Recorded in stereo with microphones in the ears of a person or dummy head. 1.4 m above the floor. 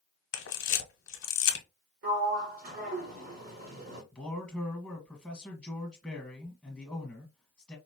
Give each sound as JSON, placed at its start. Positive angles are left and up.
{"t": 0.3, "sound": "a camera shutter", "side_deg": 70, "distance_m": 1.1}
{"t": 2.0, "sound": "a sliding door", "side_deg": -45, "distance_m": 1.3}
{"t": 4.1, "sound": "a man speaking", "side_deg": 5, "distance_m": 1.4}